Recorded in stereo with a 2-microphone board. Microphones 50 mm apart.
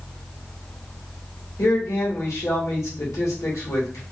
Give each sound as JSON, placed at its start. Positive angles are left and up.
{"t": 1.6, "sound": "a man speaking", "side_deg": 80, "distance_m": 1.8}